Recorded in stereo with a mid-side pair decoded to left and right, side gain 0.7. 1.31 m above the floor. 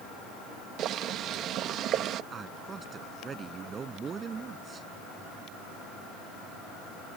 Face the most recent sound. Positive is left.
turn(degrees=-30)